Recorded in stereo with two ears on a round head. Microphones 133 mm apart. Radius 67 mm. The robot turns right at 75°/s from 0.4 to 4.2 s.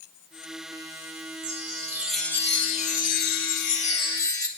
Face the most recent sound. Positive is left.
turn(degrees=155)